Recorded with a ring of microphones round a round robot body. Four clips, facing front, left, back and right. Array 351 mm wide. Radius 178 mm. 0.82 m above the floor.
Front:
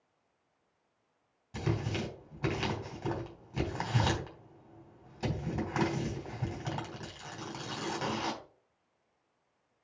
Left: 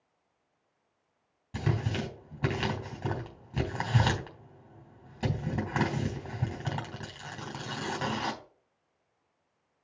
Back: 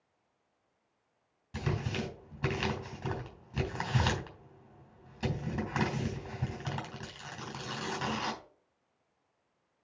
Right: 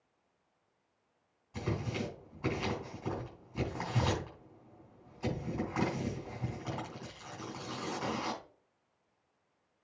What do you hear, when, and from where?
1.5 s tearing paper: 100° left, 3.5 m